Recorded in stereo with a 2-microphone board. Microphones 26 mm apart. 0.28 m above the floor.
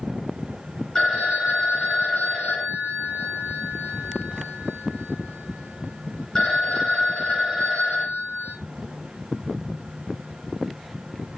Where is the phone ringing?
15° left (ahead or behind), 2 m.